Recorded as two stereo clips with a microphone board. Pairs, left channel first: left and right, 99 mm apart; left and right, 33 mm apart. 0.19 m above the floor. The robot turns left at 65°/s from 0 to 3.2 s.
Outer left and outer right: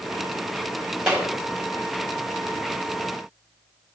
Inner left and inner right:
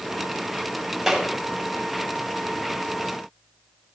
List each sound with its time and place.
1.1 s a clap: 10° right (ahead or behind), 4.5 m; by 1.3 s 20° right (ahead or behind), 4.5 m